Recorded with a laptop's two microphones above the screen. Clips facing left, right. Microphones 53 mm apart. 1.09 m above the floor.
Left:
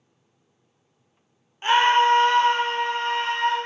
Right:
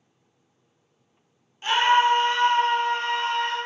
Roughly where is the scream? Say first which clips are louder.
Left 2 dB; left.